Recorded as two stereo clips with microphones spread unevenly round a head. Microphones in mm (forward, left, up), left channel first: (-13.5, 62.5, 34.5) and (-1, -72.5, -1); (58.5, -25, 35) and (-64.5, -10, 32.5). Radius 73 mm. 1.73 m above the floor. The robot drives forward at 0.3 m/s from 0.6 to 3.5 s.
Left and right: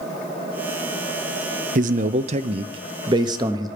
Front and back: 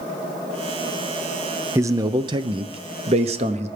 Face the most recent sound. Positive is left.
turn(degrees=-150)